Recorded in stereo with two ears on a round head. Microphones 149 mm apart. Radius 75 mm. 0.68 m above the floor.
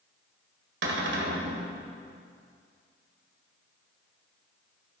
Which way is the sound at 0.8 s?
75° right (ahead or behind).